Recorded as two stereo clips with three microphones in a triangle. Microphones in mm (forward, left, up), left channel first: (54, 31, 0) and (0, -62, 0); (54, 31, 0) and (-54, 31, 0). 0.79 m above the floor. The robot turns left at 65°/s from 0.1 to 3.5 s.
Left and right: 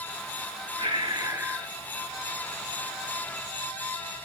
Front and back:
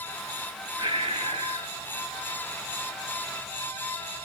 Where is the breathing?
145° right, 1.3 m; by 1.7 s 155° left, 1.3 m.